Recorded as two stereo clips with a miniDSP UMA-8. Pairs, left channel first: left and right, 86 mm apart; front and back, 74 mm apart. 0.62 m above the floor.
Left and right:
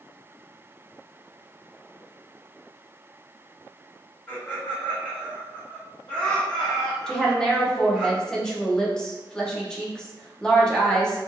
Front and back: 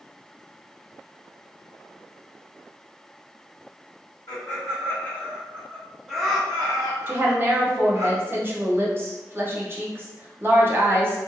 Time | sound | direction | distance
4.3 | laughter | 25° left | 1.4 m
7.1 | a woman speaking | 165° left | 0.6 m